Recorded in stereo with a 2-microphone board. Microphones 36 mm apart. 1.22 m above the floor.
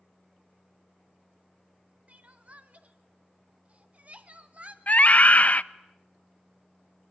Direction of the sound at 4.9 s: 45° left (ahead or behind).